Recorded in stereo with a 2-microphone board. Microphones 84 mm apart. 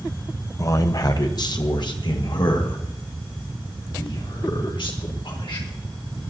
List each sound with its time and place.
0.6 s a man speaking: 40° left (ahead or behind), 1.0 m; by 5.7 s 75° left (ahead or behind), 4 m